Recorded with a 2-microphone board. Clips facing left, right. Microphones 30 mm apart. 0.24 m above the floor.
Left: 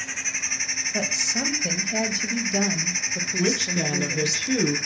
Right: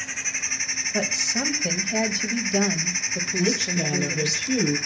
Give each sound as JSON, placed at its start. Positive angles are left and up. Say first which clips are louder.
{"t": 0.9, "sound": "a woman speaking", "louder": "right 1 dB", "side_deg": -5, "distance_m": 1.2}
{"t": 3.4, "sound": "a woman speaking", "louder": "even", "side_deg": 40, "distance_m": 3.0}